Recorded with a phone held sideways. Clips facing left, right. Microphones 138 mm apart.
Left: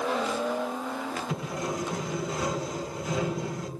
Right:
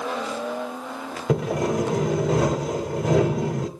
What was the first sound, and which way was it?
Sawing, 90° right.